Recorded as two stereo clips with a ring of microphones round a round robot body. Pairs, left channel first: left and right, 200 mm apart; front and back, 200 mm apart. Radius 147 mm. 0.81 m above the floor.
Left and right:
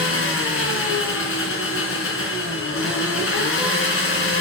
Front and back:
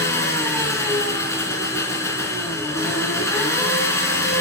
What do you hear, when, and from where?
0.0 s an engine running: 75° left, 3 m